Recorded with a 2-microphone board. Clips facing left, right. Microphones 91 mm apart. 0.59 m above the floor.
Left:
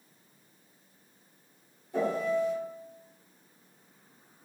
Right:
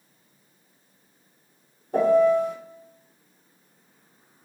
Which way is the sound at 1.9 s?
60° right (ahead or behind).